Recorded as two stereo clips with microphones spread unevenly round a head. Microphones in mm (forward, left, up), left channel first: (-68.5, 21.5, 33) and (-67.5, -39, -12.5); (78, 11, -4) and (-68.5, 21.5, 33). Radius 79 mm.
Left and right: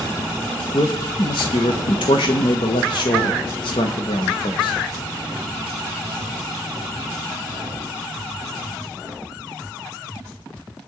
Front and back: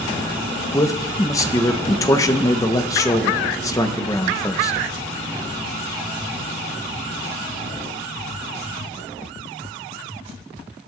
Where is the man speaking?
45° left, 1.1 m.